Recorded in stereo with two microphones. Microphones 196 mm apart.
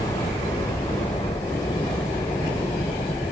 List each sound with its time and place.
0.0 s a helicopter: 20° left (ahead or behind)